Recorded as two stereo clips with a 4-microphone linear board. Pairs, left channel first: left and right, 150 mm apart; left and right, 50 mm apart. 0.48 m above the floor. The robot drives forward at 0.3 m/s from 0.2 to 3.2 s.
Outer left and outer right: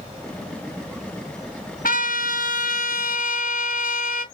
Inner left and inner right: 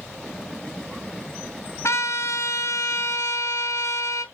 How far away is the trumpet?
About 1.9 m.